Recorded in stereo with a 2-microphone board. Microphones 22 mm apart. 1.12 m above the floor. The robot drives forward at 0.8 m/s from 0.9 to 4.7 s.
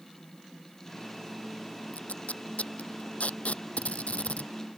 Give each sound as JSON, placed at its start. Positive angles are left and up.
{"t": 1.9, "sound": "tape being pulled", "side_deg": 80}